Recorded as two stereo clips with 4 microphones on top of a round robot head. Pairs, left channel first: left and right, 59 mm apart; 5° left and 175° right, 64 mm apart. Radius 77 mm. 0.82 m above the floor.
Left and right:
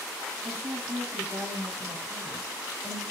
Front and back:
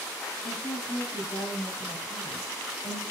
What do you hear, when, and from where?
0.4 s a woman speaking: 35° right, 7.5 m